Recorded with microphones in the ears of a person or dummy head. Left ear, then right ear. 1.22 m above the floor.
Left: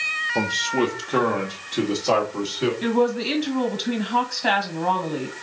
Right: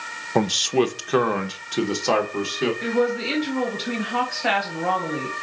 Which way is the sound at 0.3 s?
80° right.